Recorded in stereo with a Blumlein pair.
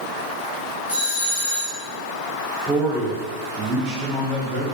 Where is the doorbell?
60° left, 1.2 m.